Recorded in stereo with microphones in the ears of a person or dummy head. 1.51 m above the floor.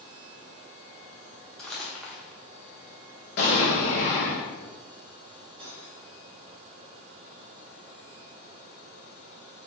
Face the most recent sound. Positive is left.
turn(degrees=-30)  # may be behind; listen again after turning